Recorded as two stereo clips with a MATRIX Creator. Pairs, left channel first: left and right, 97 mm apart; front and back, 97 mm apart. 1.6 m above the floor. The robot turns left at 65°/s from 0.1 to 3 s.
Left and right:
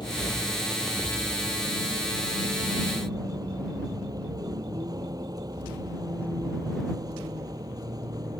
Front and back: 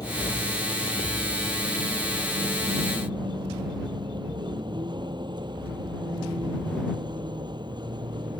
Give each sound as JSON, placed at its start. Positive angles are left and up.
{"t": 0.0, "sound": "a vehicle", "azimuth_deg": 50}